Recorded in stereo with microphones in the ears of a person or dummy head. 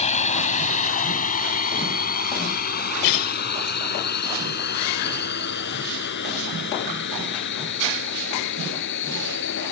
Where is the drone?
40° left (ahead or behind); by 9.7 s 65° left (ahead or behind).